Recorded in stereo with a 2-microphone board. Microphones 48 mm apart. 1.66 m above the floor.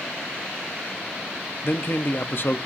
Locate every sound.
1.6 s a man speaking: 50° left (ahead or behind), 0.9 m